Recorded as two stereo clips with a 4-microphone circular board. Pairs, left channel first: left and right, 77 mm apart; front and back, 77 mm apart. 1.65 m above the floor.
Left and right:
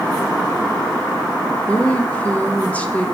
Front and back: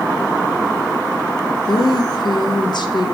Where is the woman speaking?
20° left, 0.7 m.